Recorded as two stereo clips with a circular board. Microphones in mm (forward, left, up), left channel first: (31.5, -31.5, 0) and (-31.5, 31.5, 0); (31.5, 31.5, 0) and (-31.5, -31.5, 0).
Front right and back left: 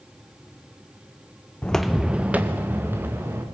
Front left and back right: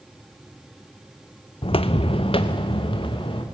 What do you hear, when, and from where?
1.6 s footsteps: 30° left, 0.6 m; by 3.4 s 70° left, 3 m